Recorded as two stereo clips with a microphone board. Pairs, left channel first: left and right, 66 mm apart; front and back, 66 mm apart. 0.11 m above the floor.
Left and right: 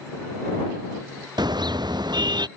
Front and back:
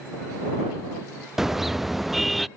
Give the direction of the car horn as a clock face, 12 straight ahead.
3 o'clock.